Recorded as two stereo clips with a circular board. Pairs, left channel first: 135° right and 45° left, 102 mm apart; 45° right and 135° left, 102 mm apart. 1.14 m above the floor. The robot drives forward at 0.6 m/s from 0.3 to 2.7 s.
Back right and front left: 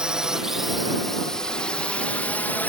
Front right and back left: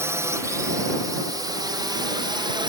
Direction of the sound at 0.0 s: 115° left.